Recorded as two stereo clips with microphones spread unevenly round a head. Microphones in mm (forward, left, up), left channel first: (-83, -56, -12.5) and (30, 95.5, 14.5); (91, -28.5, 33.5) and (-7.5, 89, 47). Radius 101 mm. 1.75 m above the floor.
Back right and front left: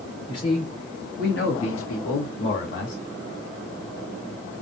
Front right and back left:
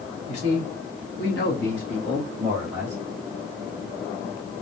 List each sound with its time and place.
0.3 s a man speaking: 55° right, 2.5 m; by 3.0 s 155° right, 1.6 m